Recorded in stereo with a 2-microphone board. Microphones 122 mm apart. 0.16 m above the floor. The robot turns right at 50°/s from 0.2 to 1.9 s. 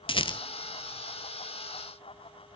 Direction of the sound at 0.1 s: 45° left (ahead or behind).